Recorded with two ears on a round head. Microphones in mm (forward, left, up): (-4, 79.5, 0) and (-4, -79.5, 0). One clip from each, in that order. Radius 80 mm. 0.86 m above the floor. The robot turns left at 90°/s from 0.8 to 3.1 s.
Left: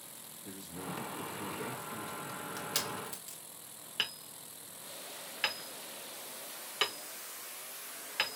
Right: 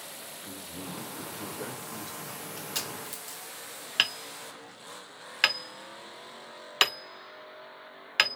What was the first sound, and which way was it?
A man speaking, 80° left.